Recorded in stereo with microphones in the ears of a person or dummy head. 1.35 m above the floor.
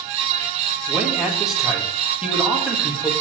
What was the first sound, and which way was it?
A man speaking, centre (ahead or behind).